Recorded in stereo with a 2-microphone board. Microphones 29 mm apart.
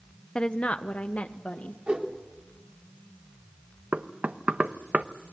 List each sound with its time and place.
0.3 s a woman speaking: 35° left (ahead or behind), 0.5 m; by 1.8 s 75° left (ahead or behind), 1.6 m
1.9 s a whoosh: 55° right (ahead or behind), 3 m
3.9 s knocking: 75° right (ahead or behind), 0.9 m